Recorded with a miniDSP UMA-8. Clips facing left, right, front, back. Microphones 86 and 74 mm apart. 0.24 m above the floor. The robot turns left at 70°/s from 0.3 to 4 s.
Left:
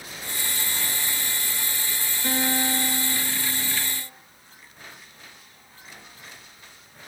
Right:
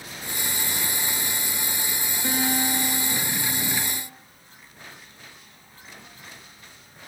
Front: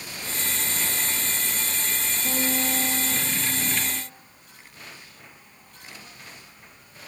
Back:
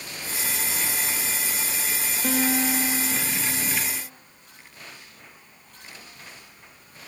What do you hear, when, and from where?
2.2 s a guitar: 170° right, 4 m; by 4.0 s 65° left, 4 m